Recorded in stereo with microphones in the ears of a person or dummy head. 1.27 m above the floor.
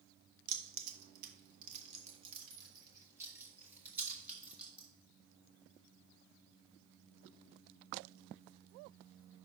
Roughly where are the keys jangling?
Right.